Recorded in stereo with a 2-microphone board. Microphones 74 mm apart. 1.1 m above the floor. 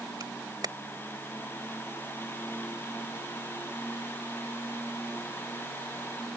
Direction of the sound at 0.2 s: 65° right (ahead or behind).